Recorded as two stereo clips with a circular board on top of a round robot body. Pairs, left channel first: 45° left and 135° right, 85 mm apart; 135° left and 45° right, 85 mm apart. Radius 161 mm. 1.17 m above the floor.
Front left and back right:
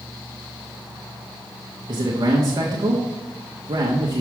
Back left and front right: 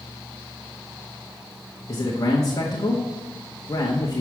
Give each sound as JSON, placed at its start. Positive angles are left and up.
{"t": 1.9, "sound": "a man speaking", "azimuth_deg": -175, "distance_m": 1.1}